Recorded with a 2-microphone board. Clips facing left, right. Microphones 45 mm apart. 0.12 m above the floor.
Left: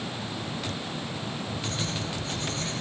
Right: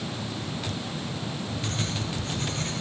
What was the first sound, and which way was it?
Writing, 50° right (ahead or behind).